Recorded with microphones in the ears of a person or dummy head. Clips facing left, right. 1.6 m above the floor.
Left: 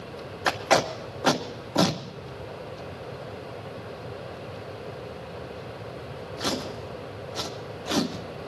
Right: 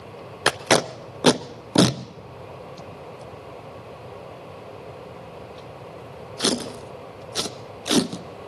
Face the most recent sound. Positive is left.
turn(degrees=-50)  # may be behind; listen again after turning